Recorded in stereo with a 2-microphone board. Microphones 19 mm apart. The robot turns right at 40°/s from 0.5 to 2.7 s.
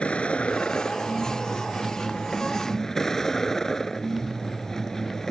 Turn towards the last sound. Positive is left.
turn(degrees=150)